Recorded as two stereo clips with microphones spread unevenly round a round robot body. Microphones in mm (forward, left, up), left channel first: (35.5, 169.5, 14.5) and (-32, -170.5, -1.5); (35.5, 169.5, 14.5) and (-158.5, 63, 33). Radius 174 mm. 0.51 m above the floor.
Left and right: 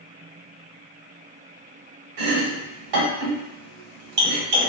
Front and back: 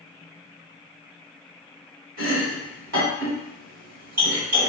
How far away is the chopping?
About 1.5 m.